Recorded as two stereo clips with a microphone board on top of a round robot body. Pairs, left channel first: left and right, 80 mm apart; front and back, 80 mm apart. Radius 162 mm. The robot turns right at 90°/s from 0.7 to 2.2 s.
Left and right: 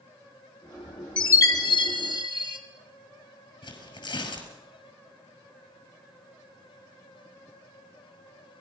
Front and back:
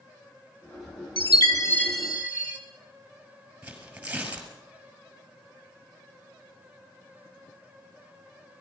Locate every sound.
1.2 s a chime: 15° left, 2.5 m; by 2.6 s 110° left, 2.5 m
3.6 s tearing paper: 105° left, 5 m